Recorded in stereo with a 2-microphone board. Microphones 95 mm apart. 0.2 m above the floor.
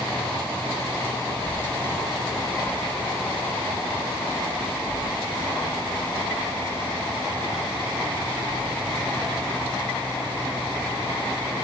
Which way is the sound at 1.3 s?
10° left (ahead or behind).